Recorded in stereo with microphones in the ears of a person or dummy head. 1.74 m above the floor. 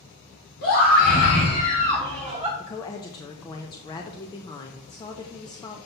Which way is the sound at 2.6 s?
20° left (ahead or behind).